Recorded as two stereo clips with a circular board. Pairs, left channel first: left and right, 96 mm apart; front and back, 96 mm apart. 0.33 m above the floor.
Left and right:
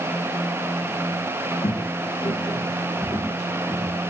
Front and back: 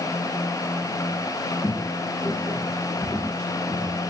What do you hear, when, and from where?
1.6 s footsteps: 60° left, 0.5 m